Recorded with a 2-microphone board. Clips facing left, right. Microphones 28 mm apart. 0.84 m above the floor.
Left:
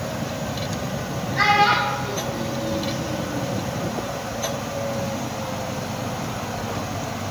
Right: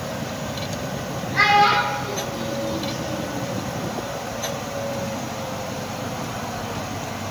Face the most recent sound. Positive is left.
turn(degrees=-85)